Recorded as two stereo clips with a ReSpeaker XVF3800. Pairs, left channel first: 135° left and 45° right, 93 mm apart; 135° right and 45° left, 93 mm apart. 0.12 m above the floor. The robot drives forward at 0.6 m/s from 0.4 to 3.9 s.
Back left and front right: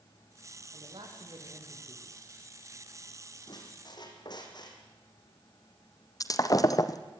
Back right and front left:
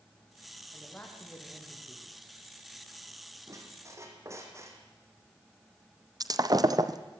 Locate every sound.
0.7 s a man speaking: 60° right, 6 m; by 2.2 s 70° right, 5.5 m
3.5 s a squeak: 95° left, 3.5 m; by 4.8 s 100° left, 3.5 m
6.2 s breaking glass: 90° left, 1.2 m